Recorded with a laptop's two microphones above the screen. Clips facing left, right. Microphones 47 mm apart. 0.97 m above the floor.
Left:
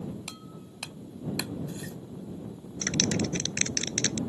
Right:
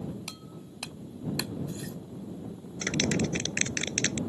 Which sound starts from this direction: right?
A clap, at 2.8 s.